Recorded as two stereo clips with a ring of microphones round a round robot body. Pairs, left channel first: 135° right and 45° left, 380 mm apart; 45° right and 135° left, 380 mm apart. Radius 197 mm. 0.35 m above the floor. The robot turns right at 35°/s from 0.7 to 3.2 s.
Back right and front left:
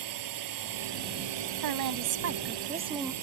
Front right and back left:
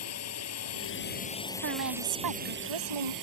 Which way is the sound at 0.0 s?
5° left.